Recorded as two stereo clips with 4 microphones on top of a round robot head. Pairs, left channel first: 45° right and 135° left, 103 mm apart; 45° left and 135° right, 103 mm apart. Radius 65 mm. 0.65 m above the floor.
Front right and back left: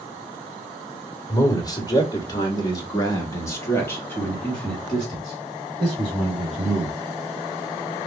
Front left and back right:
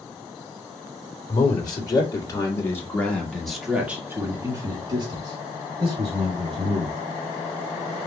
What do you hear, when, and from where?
1.3 s a man speaking: 5° left, 2 m; by 7.0 s 150° right, 2.5 m